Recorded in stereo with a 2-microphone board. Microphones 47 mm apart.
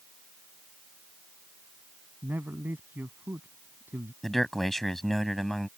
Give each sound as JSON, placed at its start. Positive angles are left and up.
{"t": 2.2, "sound": "a man speaking", "side_deg": -50}
{"t": 4.2, "sound": "a man speaking", "side_deg": 5}